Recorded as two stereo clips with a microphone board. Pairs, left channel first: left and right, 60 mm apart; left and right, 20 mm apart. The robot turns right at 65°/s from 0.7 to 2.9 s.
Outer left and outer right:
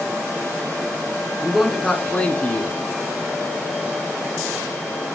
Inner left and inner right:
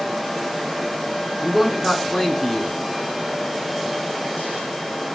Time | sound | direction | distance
1.4 | a man speaking | 20° right | 1.2 m